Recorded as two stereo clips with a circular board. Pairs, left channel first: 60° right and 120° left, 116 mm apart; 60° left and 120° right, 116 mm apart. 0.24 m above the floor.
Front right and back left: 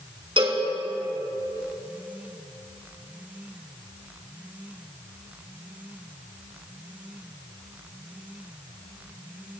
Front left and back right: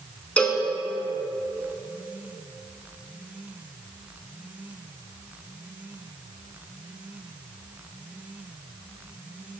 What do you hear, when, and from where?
0.4 s a cowbell: 140° left, 1.0 m